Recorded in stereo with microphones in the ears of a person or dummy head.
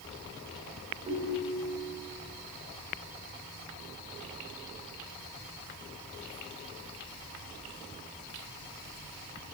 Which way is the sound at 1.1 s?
40° right (ahead or behind).